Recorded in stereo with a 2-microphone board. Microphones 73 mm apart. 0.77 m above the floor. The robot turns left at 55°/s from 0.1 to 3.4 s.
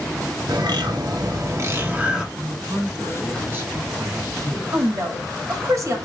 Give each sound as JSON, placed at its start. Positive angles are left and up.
{"t": 0.5, "sound": "a bird", "azimuth_deg": -75, "distance_m": 1.1}
{"t": 2.4, "sound": "a man speaking", "azimuth_deg": -90, "distance_m": 2.5}
{"t": 4.7, "sound": "a woman speaking", "side_deg": -50, "distance_m": 1.7}